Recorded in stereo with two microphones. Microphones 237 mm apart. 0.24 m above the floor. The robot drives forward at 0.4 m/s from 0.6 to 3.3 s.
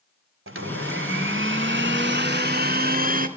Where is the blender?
65° right (ahead or behind), 1.0 m; by 3.3 s 40° right (ahead or behind), 1.4 m.